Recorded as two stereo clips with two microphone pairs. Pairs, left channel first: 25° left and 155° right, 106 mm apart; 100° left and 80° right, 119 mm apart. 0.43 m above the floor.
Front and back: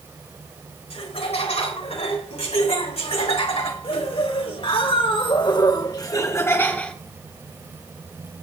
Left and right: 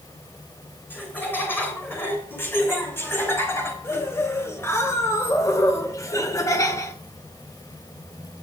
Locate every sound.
0.9 s laughter: 25° left, 3.5 m; by 7.0 s 95° left, 0.9 m